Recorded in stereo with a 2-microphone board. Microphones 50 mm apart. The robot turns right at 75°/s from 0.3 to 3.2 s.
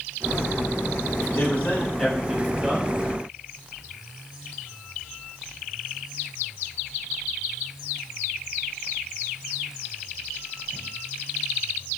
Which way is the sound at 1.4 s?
105° left.